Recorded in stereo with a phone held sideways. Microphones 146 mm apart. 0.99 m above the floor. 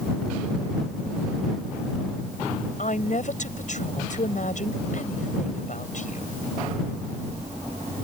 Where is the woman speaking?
60° left (ahead or behind).